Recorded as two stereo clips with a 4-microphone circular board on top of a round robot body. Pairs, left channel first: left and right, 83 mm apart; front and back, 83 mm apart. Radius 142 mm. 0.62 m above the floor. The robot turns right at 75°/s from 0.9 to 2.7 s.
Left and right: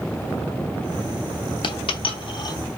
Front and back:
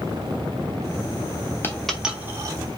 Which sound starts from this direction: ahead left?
A dropped coin, at 1.6 s.